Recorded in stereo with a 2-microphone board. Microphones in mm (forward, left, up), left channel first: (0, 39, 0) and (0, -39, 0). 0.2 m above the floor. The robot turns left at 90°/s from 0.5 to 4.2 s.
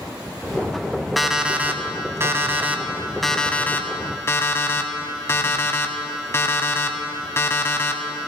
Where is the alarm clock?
Straight ahead, 0.7 m; by 8.3 s 90° left, 0.7 m.